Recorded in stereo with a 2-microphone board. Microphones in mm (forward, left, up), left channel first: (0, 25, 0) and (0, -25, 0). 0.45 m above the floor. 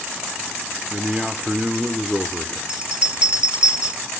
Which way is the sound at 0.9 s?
10° right (ahead or behind).